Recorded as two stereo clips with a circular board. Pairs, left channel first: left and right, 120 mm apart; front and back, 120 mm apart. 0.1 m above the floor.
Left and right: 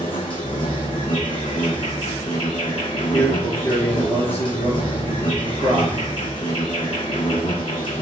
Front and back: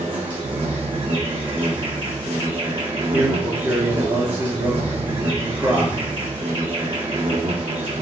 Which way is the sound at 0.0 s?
135° left.